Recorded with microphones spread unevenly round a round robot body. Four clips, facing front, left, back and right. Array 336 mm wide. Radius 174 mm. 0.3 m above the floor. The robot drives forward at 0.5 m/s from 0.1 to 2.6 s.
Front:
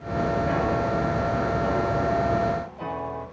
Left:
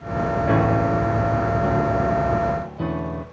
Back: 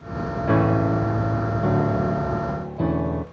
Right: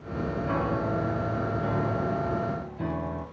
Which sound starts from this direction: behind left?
A piano, at 0.4 s.